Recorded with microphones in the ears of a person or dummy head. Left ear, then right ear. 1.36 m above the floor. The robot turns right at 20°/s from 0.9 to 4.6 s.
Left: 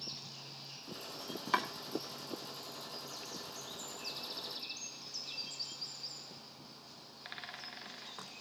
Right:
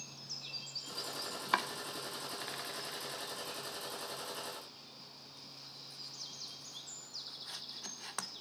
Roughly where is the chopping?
Centre.